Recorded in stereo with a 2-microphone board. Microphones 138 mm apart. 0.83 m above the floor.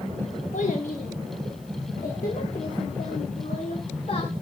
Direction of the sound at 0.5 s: 65° left (ahead or behind).